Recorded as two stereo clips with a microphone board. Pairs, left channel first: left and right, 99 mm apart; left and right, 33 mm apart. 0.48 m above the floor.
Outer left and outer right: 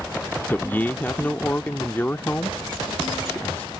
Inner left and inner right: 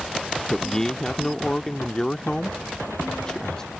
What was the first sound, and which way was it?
A man speaking, 20° left (ahead or behind).